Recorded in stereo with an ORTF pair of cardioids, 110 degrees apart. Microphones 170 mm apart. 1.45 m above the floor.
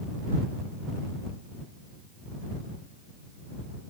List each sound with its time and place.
Only background noise.